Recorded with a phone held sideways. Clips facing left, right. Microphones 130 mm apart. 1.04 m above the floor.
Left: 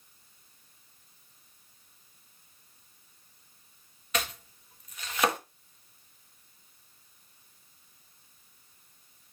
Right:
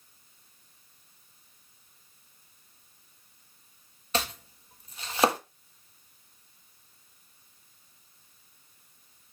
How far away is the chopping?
About 1.3 m.